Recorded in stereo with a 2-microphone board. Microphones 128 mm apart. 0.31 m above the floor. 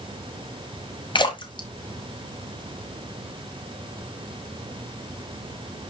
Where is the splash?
40° left (ahead or behind), 1.6 m.